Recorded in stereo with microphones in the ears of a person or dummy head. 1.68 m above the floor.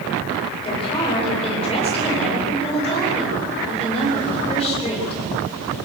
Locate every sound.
0.6 s a woman speaking: 25° left (ahead or behind), 7.5 m